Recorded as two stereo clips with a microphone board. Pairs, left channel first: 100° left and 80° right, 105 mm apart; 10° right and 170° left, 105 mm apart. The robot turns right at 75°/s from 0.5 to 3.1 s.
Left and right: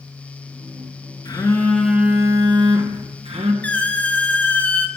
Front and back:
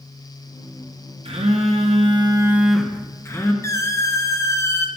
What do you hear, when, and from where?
1.2 s a phone buzzing: 145° left, 0.9 m; by 3.5 s 75° right, 0.9 m
3.6 s a squeak: 30° left, 0.6 m